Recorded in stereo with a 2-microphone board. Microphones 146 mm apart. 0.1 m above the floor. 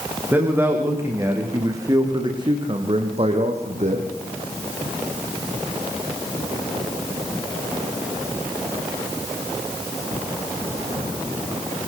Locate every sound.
0.3 s a man speaking: 15° right (ahead or behind), 7.5 m; by 4.1 s 55° right (ahead or behind), 4.5 m